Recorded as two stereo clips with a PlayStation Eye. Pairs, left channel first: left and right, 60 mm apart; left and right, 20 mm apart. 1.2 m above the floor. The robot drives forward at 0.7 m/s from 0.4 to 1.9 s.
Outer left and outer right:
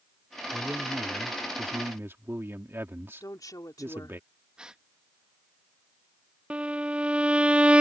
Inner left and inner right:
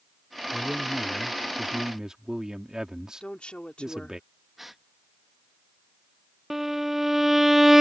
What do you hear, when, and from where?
0.5 s a man speaking: 30° right (ahead or behind); by 4.2 s 40° right (ahead or behind)
3.2 s a woman speaking: 80° left
4.6 s a gasp: 15° right (ahead or behind)
6.5 s a violin: 15° right (ahead or behind)